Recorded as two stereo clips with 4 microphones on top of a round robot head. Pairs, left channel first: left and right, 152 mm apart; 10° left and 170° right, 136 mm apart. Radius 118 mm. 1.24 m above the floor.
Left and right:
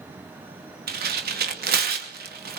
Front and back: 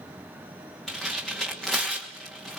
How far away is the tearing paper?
About 2.5 m.